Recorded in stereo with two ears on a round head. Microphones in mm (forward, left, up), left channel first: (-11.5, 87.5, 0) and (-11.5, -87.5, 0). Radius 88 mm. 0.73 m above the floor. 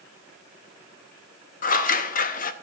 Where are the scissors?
45° left (ahead or behind), 0.7 m.